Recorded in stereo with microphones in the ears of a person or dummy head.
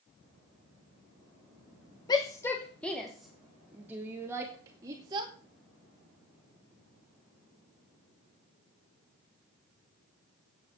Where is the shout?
20° left (ahead or behind), 1.1 m; by 5.3 s 25° right (ahead or behind), 2.5 m.